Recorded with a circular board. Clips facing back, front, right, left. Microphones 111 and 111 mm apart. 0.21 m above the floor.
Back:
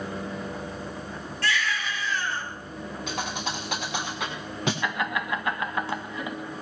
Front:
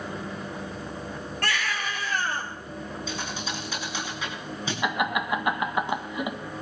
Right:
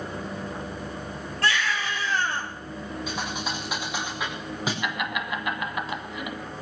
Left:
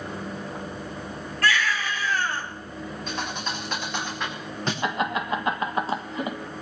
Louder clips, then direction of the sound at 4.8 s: Front 2 dB, left 4 dB; 60° left.